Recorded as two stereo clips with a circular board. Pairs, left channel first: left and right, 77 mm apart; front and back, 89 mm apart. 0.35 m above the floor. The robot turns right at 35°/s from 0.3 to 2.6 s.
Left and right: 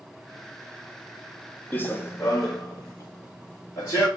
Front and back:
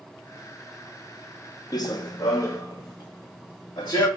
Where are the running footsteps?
30° left, 0.5 m; by 4.1 s 45° left, 1.9 m.